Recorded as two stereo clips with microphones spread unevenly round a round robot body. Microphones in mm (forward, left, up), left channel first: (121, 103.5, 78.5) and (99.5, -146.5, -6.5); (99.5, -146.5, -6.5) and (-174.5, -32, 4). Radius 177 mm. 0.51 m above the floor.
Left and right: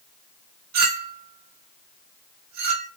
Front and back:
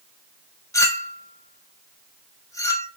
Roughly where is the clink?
Right.